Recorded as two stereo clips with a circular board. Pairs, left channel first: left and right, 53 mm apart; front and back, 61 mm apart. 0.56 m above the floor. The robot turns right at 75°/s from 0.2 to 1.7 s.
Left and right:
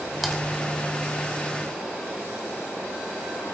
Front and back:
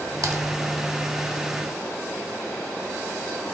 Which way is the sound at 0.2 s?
175° right.